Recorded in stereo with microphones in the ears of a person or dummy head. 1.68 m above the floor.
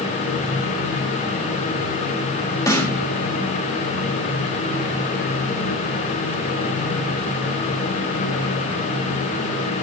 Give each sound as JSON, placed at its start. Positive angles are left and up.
{"t": 2.7, "sound": "a snare drum", "side_deg": 15, "distance_m": 2.5}